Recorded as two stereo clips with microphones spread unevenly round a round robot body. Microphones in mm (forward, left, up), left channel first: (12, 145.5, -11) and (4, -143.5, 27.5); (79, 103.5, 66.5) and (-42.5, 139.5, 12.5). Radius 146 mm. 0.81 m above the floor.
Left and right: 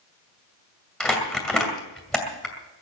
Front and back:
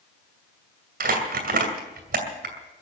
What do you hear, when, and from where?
1.0 s crumpling: straight behind, 2.5 m